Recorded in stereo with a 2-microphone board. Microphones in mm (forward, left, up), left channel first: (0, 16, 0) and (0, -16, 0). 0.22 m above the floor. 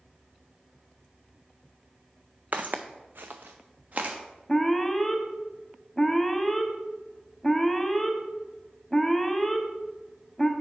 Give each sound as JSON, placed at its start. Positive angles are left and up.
{"t": 2.5, "sound": "footsteps", "side_deg": -50, "distance_m": 0.7}
{"t": 4.5, "sound": "an alarm", "side_deg": 5, "distance_m": 0.7}